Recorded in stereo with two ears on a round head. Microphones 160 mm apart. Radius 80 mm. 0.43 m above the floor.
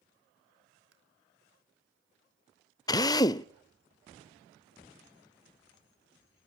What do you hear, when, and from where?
0.9 s tapping: 75° right (ahead or behind), 5.5 m
2.9 s a drill: 20° left (ahead or behind), 0.5 m